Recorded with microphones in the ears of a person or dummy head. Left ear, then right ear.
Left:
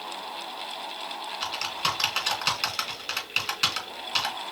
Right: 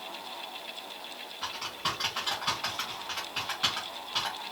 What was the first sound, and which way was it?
Typing on a keyboard, 75° left (ahead or behind).